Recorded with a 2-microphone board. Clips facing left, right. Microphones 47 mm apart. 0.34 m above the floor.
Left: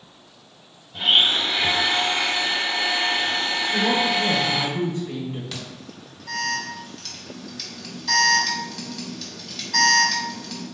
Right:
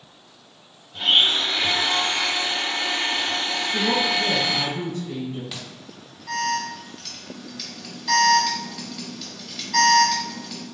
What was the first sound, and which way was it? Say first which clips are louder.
A blender: even; 10° left (ahead or behind).